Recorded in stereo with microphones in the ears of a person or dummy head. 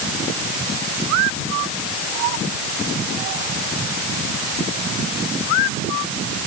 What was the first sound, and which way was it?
Only background noise.